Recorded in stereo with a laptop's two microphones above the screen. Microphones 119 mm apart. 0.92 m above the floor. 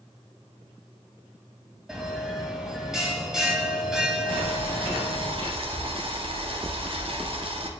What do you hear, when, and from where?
1.9 s a bell: 5° right (ahead or behind), 2 m
4.3 s boiling: 50° right (ahead or behind), 1.7 m